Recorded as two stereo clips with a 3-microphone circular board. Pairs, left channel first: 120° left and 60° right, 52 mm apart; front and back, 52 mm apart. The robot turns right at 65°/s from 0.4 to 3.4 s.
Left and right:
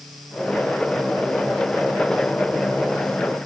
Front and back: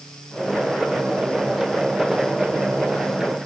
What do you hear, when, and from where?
Only background noise.